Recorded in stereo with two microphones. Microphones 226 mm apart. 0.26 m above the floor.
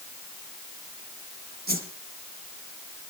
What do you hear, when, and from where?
1.7 s a whoosh: 45° right (ahead or behind), 2.5 m